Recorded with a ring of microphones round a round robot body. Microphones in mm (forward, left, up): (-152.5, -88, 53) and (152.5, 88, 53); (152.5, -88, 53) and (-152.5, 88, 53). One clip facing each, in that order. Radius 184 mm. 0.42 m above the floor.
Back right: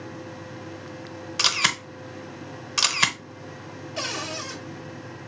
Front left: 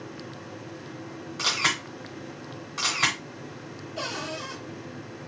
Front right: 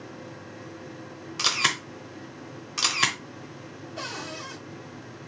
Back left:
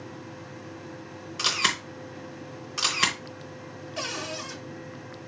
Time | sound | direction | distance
1.4 | a camera shutter | 115° right | 0.9 m
4.0 | a cupboard door | 175° left | 1.4 m